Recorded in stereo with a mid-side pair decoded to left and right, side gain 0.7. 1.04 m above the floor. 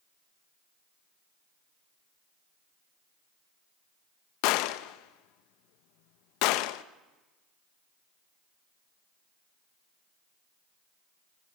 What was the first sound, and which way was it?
A gunshot, 70° left.